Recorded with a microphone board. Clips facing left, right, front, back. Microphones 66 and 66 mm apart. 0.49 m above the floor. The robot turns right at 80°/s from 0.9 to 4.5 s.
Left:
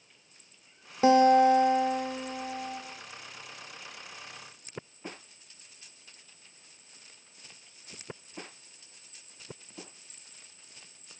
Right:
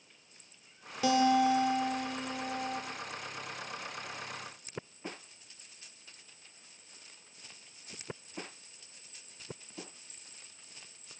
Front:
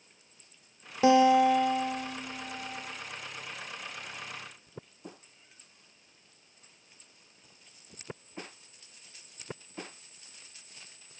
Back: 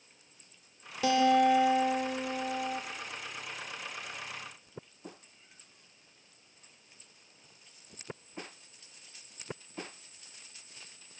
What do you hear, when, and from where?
1.0 s a guitar: 50° left, 1.6 m; by 2.8 s 165° right, 1.6 m